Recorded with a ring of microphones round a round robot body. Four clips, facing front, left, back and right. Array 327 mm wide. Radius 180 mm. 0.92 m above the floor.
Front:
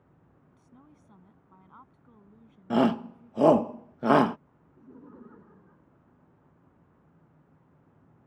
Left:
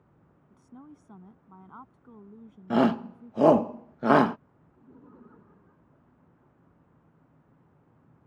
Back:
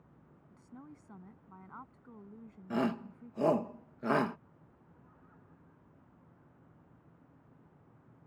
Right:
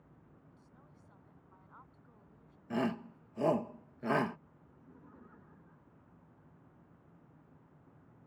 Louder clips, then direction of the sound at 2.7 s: Left 12 dB, front 9 dB; 55° left.